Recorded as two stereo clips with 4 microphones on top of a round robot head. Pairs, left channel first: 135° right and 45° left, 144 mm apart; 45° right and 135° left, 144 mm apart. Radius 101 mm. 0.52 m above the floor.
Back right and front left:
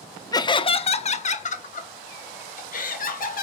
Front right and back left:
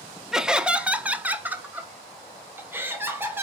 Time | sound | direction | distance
0.3 | laughter | 145° right | 0.7 m